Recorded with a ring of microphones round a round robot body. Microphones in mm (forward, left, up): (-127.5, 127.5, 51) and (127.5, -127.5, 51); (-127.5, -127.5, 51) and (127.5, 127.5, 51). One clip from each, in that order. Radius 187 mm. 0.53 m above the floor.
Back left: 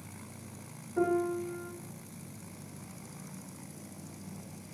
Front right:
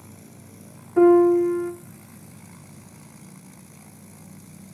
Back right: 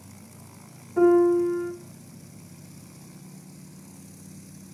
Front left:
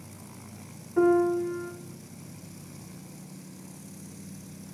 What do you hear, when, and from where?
1.0 s a piano: 50° right, 1.4 m